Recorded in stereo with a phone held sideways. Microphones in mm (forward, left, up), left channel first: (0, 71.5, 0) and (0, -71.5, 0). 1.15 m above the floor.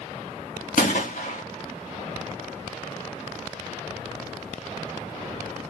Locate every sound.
0.8 s a gunshot: 70° left (ahead or behind), 1.8 m